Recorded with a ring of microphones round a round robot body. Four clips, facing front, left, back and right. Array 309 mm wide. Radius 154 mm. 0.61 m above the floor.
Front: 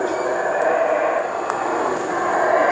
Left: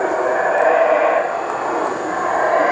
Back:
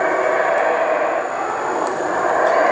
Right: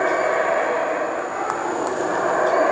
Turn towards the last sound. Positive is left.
No sound to turn to.